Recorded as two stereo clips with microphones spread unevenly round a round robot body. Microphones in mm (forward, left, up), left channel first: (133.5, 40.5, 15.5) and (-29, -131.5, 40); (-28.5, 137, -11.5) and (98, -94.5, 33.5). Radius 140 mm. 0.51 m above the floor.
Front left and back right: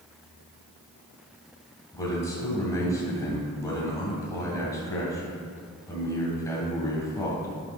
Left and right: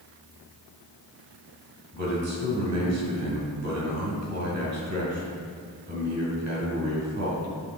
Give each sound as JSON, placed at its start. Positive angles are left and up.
{"t": 1.9, "sound": "a man speaking", "azimuth_deg": -30, "distance_m": 2.5}